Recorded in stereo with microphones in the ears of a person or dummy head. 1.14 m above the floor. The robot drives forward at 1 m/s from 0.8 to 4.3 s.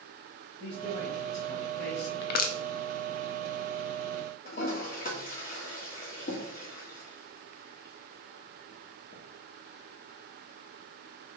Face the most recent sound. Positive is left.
turn(degrees=45)  # may be behind; listen again after turning